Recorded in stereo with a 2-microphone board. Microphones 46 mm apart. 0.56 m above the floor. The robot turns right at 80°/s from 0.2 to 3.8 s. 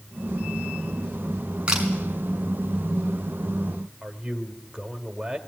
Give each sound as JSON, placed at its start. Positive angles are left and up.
{"t": 1.7, "sound": "a camera shutter", "side_deg": -20, "distance_m": 5.5}
{"t": 4.0, "sound": "a man speaking", "side_deg": -15, "distance_m": 2.0}